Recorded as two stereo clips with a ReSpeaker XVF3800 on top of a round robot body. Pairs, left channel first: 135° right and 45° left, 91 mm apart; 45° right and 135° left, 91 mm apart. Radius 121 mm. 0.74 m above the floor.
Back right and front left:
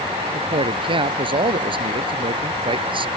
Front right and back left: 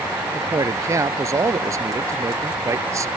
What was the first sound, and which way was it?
A man speaking, 75° left.